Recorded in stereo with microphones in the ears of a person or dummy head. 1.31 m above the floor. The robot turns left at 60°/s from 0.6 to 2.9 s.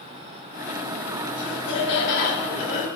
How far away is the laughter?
About 7 m.